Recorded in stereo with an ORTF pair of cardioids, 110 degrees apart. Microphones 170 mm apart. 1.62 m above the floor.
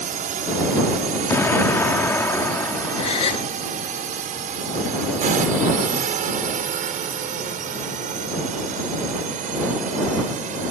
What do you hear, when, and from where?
0.0 s a drone: 55° right
1.3 s an explosion: 15° left
3.0 s a gasp: 40° left